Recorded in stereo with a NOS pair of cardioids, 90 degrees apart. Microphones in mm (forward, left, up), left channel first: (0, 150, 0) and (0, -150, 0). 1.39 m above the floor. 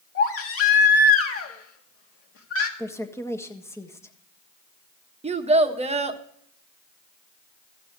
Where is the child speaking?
20° right, 1.3 m.